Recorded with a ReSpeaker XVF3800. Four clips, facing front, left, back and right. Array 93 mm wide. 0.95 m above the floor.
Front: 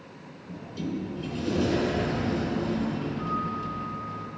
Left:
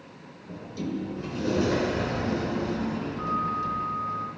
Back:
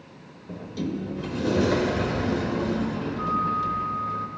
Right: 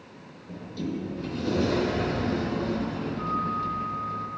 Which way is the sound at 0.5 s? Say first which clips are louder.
Even, back 3 dB; 170° left.